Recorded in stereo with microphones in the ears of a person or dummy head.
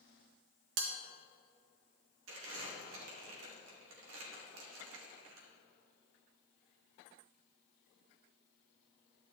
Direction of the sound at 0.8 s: 65° right (ahead or behind).